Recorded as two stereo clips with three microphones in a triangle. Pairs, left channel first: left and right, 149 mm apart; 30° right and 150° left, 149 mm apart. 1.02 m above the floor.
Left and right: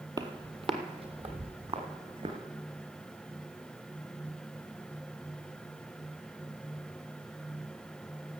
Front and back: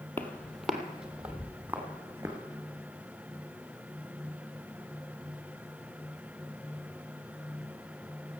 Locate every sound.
0.2 s footsteps: 90° right, 1.1 m; by 2.4 s 135° right, 3 m